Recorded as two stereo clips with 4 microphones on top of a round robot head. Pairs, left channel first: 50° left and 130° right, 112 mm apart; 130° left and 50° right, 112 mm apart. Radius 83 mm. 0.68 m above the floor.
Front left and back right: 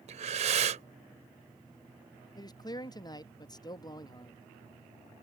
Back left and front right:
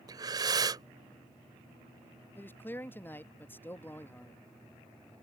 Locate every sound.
0.1 s breathing: 105° right
2.4 s a man speaking: 70° left